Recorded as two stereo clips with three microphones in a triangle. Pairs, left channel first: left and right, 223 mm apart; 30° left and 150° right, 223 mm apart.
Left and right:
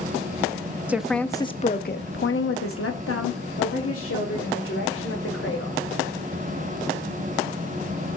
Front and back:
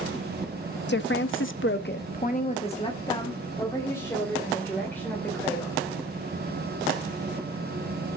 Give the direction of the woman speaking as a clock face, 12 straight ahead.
12 o'clock.